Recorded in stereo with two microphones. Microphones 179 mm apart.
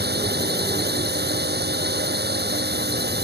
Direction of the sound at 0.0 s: 65° right (ahead or behind).